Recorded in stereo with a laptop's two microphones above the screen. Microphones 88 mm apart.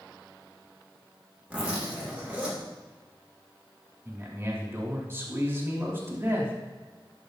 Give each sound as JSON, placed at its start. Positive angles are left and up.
{"t": 1.5, "sound": "a zipper", "side_deg": -15, "distance_m": 2.5}
{"t": 4.0, "sound": "a man speaking", "side_deg": -30, "distance_m": 2.5}